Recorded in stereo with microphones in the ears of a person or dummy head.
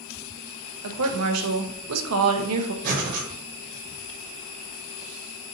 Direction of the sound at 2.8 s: 50° right (ahead or behind).